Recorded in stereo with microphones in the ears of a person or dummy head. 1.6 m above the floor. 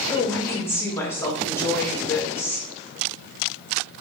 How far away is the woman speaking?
About 1.0 m.